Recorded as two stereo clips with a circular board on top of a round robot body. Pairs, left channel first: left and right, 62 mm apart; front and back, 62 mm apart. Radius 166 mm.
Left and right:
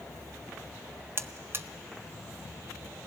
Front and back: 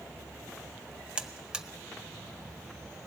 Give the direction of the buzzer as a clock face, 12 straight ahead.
4 o'clock.